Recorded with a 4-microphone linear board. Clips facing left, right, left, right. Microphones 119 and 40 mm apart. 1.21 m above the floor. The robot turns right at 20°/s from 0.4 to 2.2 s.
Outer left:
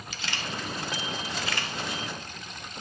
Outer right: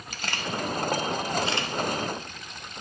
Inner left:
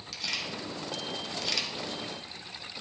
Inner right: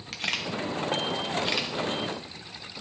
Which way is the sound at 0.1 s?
50° right (ahead or behind).